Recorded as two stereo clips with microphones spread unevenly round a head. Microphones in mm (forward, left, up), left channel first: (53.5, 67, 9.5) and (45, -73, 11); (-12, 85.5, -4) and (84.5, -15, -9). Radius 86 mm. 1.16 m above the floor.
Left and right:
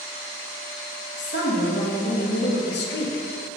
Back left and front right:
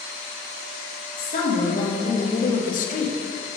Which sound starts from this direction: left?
A woman speaking, at 1.2 s.